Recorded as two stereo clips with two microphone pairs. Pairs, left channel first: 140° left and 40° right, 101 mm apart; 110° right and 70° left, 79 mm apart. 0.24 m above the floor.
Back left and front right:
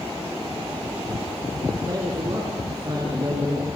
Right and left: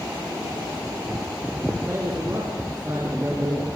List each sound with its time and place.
1.9 s a man speaking: 10° left, 4 m